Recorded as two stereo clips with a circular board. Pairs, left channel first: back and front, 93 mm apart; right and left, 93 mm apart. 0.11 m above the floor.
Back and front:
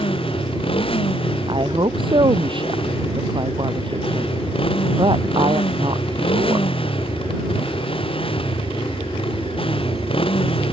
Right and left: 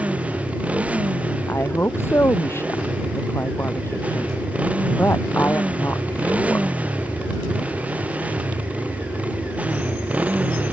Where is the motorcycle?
165° left.